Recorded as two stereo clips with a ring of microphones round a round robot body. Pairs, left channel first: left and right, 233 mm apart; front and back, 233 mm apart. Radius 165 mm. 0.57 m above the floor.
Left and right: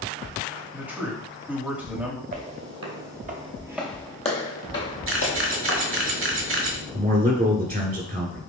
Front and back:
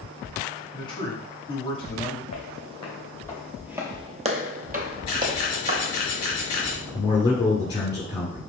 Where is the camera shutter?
65° right, 1.3 m.